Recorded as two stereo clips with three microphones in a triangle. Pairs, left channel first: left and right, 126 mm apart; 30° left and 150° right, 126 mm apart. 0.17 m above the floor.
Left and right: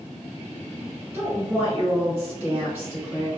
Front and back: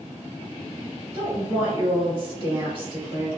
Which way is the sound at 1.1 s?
155° right.